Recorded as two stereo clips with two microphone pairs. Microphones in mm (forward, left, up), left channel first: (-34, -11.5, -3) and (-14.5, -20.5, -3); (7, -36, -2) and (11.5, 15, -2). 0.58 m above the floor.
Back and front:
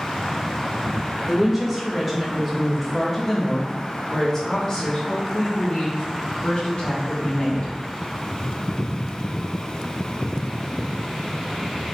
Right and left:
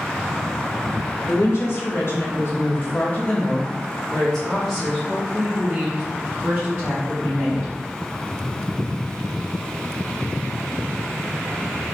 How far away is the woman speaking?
About 2.0 m.